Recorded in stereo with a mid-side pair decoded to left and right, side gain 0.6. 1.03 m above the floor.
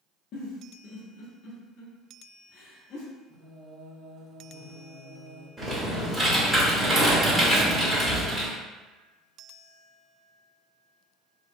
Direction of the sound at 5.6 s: 10° right.